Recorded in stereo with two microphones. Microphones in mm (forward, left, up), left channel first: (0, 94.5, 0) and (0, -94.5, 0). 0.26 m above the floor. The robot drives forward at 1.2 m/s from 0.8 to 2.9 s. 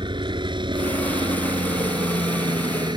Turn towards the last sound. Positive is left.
turn(degrees=-25)  # may be behind; listen again after turning